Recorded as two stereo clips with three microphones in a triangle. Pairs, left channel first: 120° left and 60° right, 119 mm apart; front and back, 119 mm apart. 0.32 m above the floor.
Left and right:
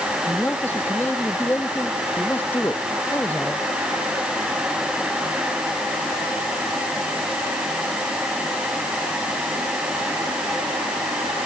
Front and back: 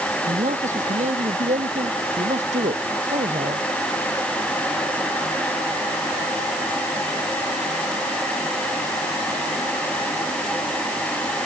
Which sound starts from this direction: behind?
A man speaking, at 0.2 s.